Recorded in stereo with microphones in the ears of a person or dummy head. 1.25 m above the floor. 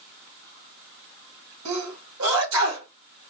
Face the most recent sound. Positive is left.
turn(degrees=-80)